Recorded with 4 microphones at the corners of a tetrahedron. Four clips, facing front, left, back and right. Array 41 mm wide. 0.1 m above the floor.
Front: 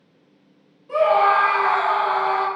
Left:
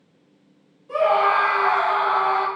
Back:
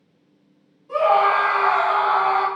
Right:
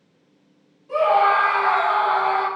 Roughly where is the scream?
Ahead.